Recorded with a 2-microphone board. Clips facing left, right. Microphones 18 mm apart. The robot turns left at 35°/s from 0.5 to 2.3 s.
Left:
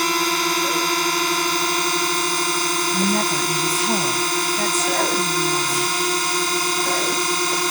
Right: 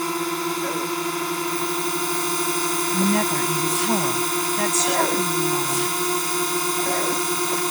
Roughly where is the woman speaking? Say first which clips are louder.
Left 1 dB; right.